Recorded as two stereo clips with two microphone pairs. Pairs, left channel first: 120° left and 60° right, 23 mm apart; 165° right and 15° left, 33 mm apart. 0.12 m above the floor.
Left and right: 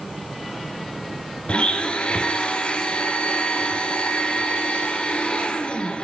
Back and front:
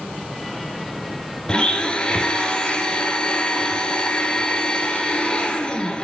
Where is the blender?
140° left, 1.5 m.